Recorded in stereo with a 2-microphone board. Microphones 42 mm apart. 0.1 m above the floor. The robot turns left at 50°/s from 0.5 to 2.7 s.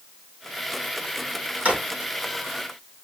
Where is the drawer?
30° right (ahead or behind), 2.5 m; by 1.8 s 20° right (ahead or behind), 2.5 m.